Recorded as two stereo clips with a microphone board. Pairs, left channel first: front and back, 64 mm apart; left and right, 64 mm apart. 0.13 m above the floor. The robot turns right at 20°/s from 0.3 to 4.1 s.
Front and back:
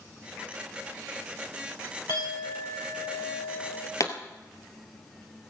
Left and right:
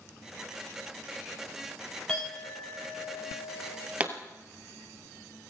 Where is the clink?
15° left, 6 m; by 3.9 s 50° left, 6 m.